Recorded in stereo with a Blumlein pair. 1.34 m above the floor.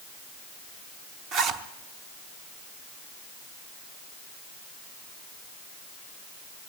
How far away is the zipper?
About 0.9 m.